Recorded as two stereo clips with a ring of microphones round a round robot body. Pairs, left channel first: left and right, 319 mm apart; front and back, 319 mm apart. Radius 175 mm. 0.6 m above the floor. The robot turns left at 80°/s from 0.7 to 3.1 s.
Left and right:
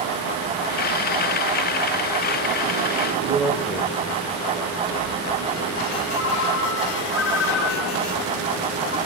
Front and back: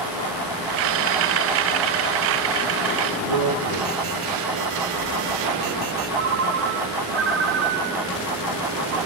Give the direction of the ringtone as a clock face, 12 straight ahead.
7 o'clock.